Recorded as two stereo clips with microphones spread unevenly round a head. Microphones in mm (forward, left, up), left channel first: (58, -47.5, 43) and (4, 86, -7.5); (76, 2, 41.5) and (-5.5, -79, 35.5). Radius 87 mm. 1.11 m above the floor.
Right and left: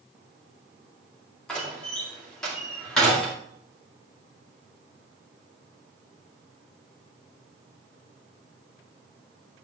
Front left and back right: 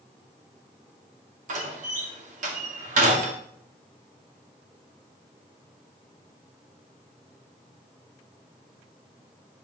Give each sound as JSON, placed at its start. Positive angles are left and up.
{"t": 1.5, "sound": "a door slam", "azimuth_deg": -155, "distance_m": 2.0}